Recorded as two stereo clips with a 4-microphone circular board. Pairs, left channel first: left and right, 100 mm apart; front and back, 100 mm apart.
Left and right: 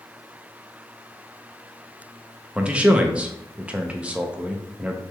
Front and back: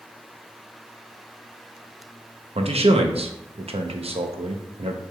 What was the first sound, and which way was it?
A man speaking, 170° right.